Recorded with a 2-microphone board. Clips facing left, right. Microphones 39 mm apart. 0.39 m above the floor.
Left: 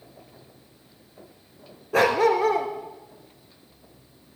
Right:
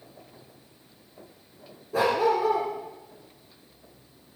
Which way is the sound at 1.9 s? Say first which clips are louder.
Left 3 dB; 80° left.